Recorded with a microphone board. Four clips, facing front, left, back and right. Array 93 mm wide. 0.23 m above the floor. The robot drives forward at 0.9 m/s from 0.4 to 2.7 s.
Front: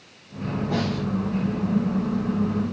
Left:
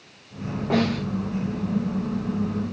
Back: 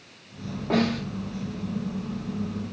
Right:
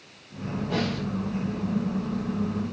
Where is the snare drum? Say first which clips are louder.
Left 7 dB, back 4 dB; 125° left, 9 m; by 1.1 s 130° left, 9 m.